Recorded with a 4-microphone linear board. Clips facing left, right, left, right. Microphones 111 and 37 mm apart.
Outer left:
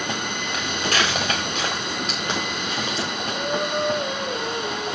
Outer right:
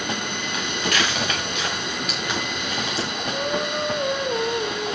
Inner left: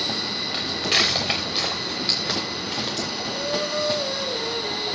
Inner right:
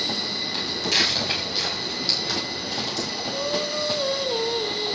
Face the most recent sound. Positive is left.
turn(degrees=-65)  # may be behind; listen again after turning